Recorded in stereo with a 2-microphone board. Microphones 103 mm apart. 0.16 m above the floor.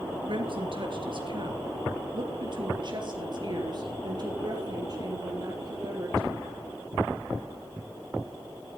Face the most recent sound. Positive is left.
turn(degrees=-40)  # may be behind; listen again after turning